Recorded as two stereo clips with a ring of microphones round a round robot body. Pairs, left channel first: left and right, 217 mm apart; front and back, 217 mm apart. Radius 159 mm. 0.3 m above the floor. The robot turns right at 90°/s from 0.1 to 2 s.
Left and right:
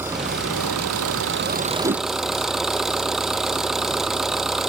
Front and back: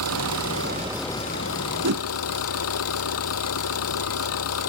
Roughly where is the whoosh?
Behind.